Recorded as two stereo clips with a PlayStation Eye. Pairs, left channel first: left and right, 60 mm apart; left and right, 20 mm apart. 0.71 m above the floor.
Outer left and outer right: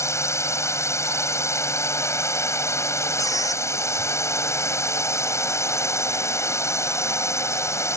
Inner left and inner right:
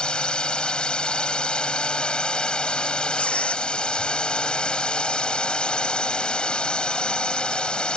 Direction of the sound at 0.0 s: 50° left (ahead or behind).